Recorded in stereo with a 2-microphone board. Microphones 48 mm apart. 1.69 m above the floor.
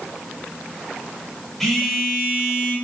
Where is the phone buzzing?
Centre (ahead or behind), 3.5 m.